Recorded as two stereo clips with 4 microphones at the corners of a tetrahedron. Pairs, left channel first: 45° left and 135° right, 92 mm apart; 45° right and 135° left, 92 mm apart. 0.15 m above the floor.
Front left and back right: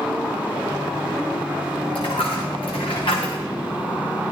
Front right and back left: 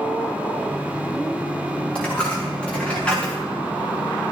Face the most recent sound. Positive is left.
turn(degrees=35)